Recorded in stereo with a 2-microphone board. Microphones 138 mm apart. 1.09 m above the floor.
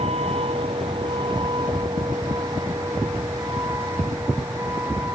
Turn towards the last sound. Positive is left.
turn(degrees=-15)  # may be behind; listen again after turning